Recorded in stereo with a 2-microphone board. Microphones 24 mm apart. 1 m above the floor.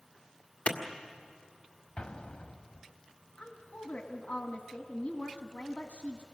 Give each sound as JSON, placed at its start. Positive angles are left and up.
{"t": 0.7, "sound": "a clap", "side_deg": 60, "distance_m": 1.7}
{"t": 2.0, "sound": "an explosion", "side_deg": 55, "distance_m": 0.8}
{"t": 3.4, "sound": "a woman speaking", "side_deg": 75, "distance_m": 1.4}